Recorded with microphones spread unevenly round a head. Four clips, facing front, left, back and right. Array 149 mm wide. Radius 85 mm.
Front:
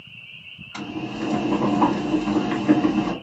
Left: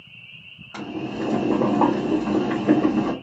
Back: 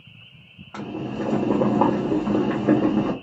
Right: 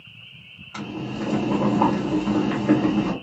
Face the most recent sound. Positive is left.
turn(degrees=150)